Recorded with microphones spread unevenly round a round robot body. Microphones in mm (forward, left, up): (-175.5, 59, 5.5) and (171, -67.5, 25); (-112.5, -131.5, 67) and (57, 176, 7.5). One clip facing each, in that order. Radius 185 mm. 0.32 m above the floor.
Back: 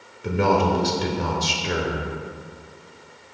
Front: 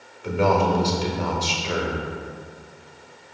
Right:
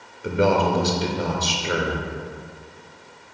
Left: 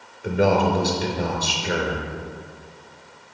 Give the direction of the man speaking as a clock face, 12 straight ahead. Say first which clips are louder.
Even, even; 7 o'clock.